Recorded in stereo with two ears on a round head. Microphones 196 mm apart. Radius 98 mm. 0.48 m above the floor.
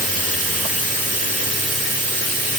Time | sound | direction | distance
0.0 | running water | 35° right (ahead or behind) | 0.8 m